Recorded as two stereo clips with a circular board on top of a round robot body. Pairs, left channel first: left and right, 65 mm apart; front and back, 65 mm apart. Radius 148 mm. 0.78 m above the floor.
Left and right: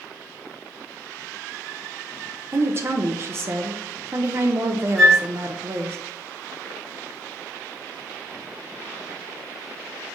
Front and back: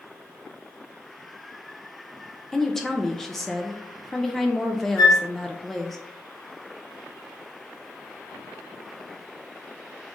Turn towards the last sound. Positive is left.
turn(degrees=5)